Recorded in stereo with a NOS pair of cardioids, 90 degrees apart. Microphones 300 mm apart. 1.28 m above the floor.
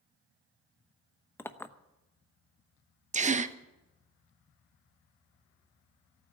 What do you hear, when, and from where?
1.4 s a clink: 10° left, 0.9 m
3.1 s a gasp: 25° right, 0.9 m